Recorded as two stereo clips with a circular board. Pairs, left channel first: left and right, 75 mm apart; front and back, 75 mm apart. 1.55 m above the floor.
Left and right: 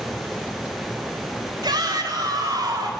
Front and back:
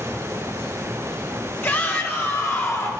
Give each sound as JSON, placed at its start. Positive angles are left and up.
{"t": 1.6, "sound": "a shout", "azimuth_deg": -60, "distance_m": 3.5}